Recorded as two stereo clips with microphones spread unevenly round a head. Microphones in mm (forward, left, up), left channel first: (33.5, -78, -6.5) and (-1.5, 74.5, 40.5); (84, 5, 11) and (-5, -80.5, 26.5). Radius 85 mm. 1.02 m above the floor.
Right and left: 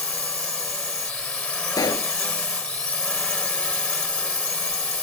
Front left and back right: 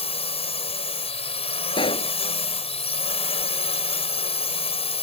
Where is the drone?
5° left.